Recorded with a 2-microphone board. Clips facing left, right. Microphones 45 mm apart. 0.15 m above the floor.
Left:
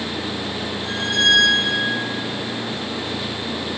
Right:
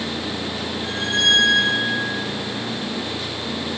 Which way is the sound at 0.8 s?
35° right (ahead or behind).